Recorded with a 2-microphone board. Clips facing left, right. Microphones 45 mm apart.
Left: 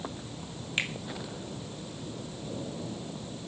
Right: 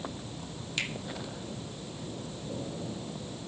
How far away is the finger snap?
About 2.5 m.